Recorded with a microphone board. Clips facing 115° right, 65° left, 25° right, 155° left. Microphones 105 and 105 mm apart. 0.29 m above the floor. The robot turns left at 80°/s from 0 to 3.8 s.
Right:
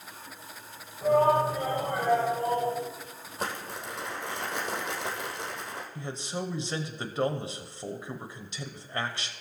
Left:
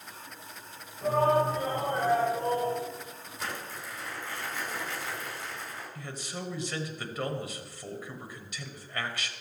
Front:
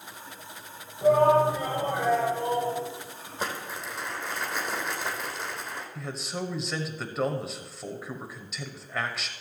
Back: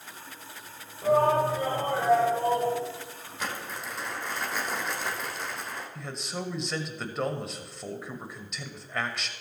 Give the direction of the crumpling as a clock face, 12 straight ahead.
3 o'clock.